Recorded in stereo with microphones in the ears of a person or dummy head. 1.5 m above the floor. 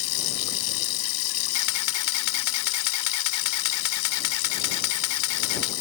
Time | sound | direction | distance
0.0 | running water | 70° left (ahead or behind) | ?
1.5 | a camera shutter | 85° left | ?